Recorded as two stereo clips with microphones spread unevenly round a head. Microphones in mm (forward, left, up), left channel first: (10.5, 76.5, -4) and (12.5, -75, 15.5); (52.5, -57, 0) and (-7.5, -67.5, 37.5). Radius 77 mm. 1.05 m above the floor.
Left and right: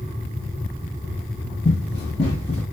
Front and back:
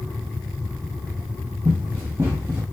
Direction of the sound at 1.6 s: 150° left.